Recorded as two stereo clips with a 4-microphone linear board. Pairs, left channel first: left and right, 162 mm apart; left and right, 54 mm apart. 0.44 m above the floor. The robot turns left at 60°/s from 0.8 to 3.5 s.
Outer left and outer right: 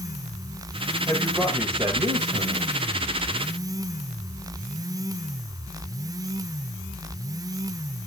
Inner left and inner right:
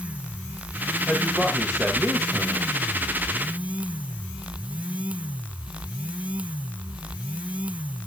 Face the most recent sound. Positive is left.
turn(degrees=-130)